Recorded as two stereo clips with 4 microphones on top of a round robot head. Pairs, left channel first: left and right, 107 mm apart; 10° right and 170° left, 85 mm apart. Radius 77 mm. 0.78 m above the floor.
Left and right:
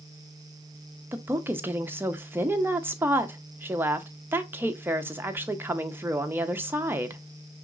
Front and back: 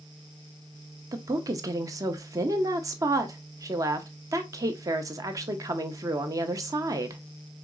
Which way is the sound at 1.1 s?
155° right.